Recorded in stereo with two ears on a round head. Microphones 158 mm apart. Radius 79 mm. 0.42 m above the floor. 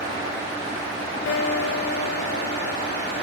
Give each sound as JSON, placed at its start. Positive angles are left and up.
{"t": 1.3, "sound": "a guitar", "side_deg": 70, "distance_m": 0.7}